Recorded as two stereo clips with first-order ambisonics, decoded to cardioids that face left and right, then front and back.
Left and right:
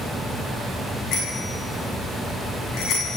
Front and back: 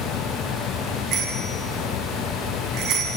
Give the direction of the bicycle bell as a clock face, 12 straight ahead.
7 o'clock.